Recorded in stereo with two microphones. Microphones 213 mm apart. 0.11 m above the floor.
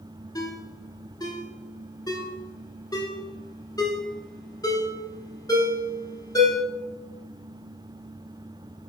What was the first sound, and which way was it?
A ringtone, 20° left (ahead or behind).